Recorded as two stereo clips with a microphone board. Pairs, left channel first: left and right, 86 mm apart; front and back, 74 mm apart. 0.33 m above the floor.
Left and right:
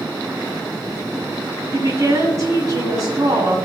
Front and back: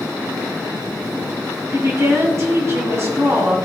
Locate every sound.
1.7 s a woman speaking: 130° right, 2.5 m